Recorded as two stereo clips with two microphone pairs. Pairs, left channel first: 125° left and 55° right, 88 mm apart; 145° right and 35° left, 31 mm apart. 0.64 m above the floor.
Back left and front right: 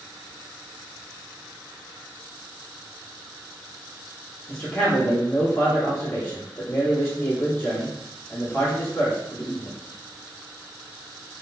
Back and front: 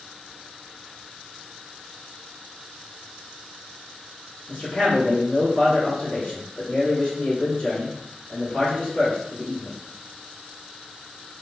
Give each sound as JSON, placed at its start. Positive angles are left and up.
{"t": 4.5, "sound": "a man speaking", "azimuth_deg": 170, "distance_m": 1.2}